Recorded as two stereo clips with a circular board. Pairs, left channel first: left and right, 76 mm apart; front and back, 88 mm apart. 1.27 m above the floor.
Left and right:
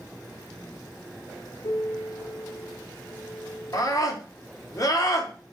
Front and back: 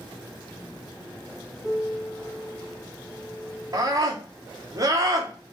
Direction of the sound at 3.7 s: 130° left.